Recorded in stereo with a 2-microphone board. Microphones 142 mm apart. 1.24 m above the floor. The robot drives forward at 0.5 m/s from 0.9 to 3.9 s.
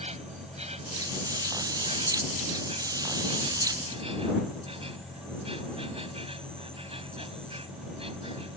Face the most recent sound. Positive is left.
turn(degrees=-40)  # may be behind; listen again after turning